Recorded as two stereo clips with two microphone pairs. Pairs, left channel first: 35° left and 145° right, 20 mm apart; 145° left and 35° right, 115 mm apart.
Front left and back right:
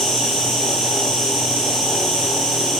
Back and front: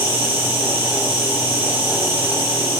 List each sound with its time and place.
0.0 s an insect: 95° left, 6 m